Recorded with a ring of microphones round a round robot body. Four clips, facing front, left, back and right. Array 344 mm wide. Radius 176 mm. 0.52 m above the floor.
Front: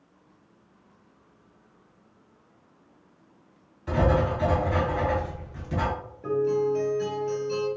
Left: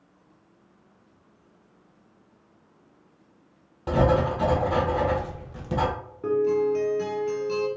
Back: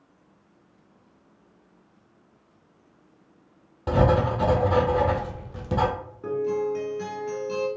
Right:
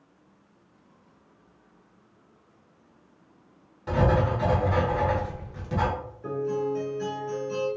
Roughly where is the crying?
No crying in this recording.